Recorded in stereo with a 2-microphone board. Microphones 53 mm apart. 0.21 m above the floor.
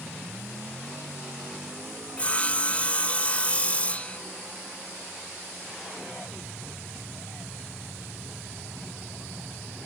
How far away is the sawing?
About 0.6 m.